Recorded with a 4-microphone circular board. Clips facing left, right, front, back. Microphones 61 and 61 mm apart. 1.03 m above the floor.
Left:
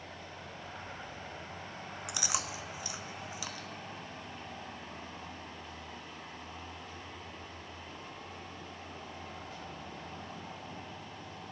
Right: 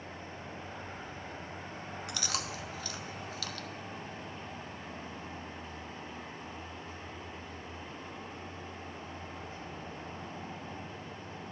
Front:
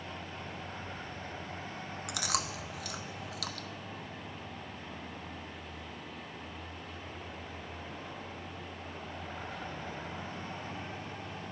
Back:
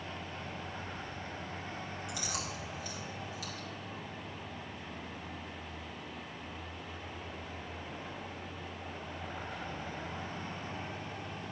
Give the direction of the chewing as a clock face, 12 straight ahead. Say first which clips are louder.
Left 1 dB, front 7 dB; 11 o'clock.